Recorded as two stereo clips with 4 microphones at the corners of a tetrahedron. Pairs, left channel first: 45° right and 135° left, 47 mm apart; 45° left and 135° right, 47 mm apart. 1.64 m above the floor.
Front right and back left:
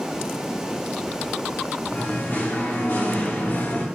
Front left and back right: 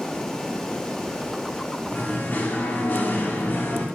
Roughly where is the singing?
Ahead.